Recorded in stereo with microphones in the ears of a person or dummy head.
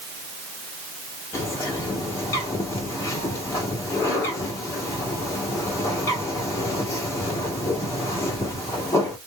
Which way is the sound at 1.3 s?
15° left (ahead or behind).